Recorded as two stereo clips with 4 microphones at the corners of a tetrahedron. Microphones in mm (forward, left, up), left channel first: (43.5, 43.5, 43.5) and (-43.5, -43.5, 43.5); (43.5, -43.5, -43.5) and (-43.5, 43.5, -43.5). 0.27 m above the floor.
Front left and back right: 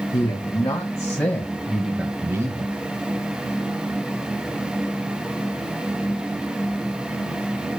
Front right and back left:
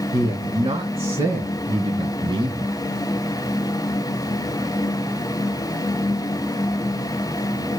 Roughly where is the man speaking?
Left.